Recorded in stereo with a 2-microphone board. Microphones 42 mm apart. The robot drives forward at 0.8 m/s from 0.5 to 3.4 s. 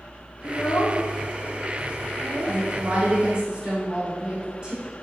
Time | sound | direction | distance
0.4 | a child speaking | 65° left (ahead or behind) | 0.7 m
2.5 | a woman speaking | 40° right (ahead or behind) | 1.6 m